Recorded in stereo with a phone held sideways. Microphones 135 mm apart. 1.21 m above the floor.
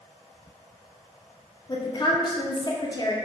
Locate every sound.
1.7 s a woman speaking: 30° left (ahead or behind), 0.5 m